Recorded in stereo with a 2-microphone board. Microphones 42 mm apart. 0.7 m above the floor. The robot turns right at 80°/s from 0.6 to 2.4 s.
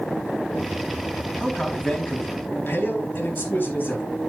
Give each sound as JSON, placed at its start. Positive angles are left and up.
{"t": 1.4, "sound": "a man speaking", "azimuth_deg": -25, "distance_m": 4.0}